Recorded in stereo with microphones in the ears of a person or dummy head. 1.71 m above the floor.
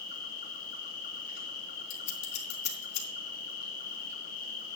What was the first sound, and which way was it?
An insect, 55° left (ahead or behind).